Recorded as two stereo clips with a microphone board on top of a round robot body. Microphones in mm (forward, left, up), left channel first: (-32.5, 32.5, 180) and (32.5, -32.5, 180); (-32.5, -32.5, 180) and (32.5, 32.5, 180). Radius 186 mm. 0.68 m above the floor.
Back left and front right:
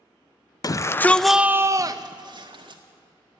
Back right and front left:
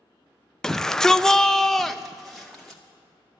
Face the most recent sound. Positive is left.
turn(degrees=-45)